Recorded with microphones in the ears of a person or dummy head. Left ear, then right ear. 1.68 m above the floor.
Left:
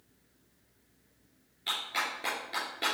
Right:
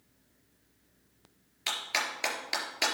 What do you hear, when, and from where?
1.7 s a clap: 45° right (ahead or behind), 3.5 m